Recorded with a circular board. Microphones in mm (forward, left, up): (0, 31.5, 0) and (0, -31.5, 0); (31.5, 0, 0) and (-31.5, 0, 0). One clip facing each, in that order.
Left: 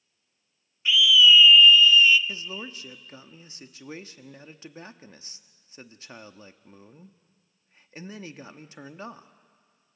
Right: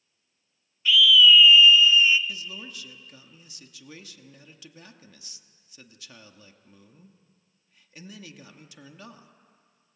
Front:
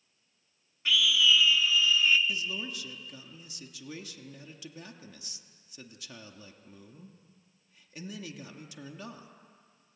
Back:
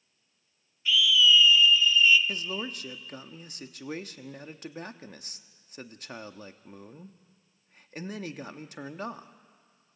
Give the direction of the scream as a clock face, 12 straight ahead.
11 o'clock.